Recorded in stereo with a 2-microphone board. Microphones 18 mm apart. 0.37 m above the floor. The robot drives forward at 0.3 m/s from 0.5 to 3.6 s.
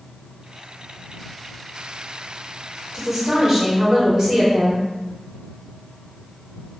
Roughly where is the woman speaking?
Right.